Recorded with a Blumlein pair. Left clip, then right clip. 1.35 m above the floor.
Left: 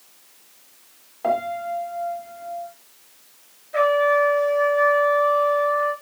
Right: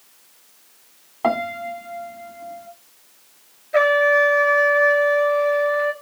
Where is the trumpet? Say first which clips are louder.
Right 2 dB; 70° right, 2.5 m.